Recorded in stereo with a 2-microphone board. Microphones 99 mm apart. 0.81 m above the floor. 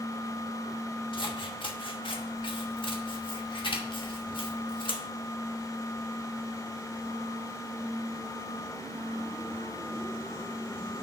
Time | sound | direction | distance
1.1 | scissors | 60° left (ahead or behind) | 1.1 m